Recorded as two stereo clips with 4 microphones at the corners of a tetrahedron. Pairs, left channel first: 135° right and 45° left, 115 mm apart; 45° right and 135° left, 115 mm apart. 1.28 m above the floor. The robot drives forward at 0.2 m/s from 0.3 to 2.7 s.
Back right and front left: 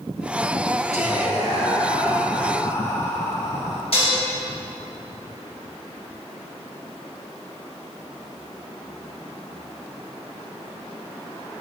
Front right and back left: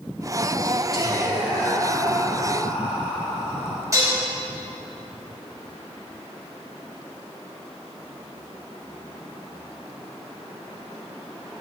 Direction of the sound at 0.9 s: 130° right.